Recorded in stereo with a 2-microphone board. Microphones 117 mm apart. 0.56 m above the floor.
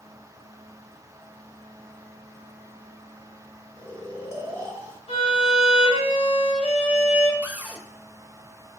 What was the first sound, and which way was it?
Snoring, 25° right (ahead or behind).